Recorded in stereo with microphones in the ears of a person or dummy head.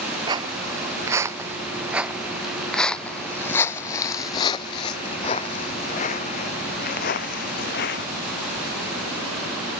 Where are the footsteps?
25° right (ahead or behind); by 8.1 s 60° left (ahead or behind).